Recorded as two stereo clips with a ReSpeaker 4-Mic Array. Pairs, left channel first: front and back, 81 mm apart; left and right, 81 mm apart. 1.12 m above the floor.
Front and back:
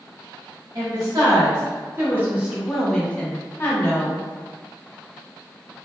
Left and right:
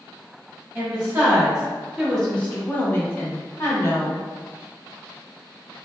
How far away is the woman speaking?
About 1.1 m.